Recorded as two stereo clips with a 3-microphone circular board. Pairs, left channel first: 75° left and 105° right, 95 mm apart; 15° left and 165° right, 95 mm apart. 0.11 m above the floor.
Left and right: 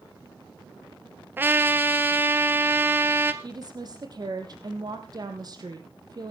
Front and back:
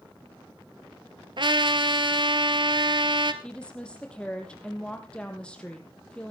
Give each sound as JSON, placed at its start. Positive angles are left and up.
{"t": 1.4, "sound": "a trumpet", "azimuth_deg": -165, "distance_m": 1.1}
{"t": 3.4, "sound": "a woman speaking", "azimuth_deg": -65, "distance_m": 3.0}